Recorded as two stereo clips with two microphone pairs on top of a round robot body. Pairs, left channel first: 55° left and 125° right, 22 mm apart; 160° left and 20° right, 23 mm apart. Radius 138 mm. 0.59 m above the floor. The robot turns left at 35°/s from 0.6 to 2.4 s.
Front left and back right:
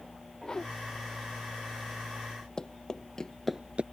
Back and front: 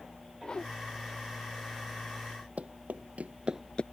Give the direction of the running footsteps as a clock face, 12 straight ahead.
12 o'clock.